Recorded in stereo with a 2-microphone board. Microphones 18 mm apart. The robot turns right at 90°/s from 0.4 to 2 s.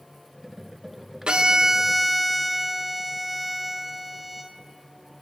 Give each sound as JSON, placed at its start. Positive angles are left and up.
{"t": 1.3, "sound": "a violin", "azimuth_deg": -70, "distance_m": 0.8}